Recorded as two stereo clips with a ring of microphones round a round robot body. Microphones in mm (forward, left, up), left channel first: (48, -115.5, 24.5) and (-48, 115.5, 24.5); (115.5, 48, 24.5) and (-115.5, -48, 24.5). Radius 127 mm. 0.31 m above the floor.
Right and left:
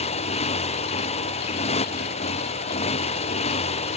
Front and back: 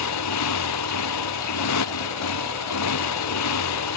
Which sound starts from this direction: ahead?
A motorcycle, at 0.0 s.